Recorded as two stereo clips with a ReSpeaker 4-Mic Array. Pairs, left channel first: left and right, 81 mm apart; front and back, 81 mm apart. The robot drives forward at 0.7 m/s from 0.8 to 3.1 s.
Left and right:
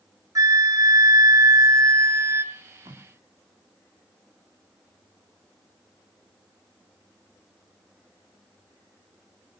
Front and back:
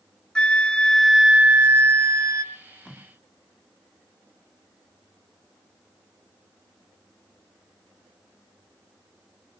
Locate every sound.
0.3 s a flute: 75° right, 0.9 m; by 2.4 s 145° right, 1.3 m
2.5 s tape being pulled: 90° right, 8.5 m